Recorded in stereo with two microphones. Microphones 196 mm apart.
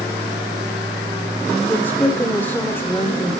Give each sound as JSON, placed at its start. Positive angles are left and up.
{"t": 1.7, "sound": "a woman speaking", "side_deg": 10, "distance_m": 0.8}